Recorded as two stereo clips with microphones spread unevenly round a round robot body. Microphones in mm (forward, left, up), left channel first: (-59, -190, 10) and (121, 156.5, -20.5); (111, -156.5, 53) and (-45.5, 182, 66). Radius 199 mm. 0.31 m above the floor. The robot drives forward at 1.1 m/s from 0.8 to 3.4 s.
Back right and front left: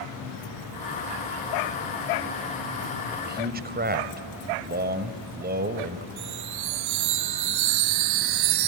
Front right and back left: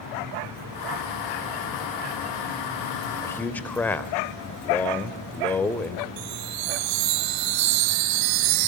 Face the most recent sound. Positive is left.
turn(degrees=105)